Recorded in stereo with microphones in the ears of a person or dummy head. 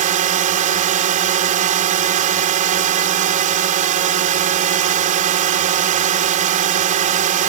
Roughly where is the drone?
Right.